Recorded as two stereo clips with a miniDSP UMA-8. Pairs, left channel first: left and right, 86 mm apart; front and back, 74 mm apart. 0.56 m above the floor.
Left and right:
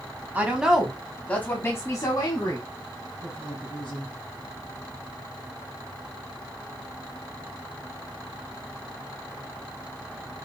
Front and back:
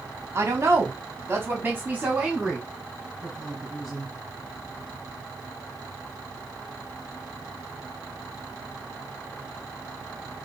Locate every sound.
0.3 s a woman speaking: 150° right, 1.1 m; by 4.1 s 95° left, 2 m